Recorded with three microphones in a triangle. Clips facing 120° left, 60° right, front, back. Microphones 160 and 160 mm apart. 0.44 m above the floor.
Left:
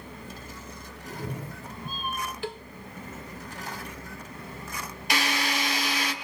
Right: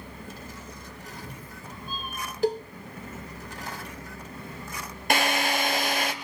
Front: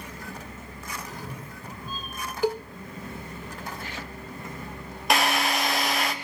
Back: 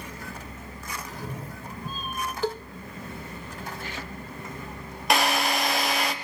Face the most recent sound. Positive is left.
turn(degrees=-90)